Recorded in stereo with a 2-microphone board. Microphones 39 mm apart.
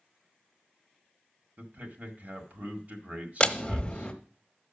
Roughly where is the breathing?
I don't hear breathing.